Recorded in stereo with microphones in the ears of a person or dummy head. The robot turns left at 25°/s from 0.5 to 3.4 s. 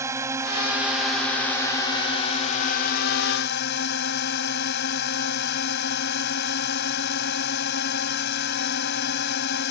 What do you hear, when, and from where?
0.0 s a drone: 165° right; by 9.7 s 125° left